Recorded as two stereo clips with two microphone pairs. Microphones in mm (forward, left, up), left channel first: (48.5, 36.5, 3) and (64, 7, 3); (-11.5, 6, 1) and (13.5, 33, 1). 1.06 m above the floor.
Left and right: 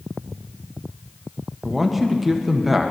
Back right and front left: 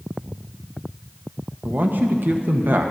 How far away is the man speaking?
About 0.9 m.